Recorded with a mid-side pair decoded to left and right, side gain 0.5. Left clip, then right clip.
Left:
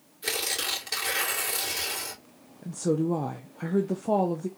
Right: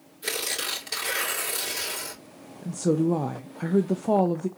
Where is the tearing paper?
Straight ahead, 3 m.